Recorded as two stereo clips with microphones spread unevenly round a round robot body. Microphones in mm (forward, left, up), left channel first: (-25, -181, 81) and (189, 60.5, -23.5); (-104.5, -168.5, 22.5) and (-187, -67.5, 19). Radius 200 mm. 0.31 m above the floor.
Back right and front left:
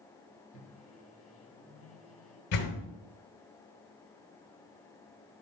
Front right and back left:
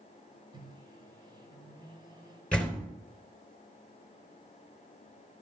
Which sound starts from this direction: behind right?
A door slam, at 2.5 s.